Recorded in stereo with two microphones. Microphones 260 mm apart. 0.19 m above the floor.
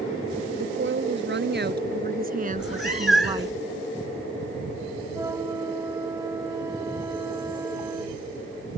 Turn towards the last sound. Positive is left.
turn(degrees=-10)  # may be behind; listen again after turning